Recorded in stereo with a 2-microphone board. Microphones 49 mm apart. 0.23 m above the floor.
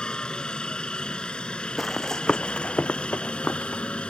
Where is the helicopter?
20° left (ahead or behind); by 4.1 s 25° left (ahead or behind).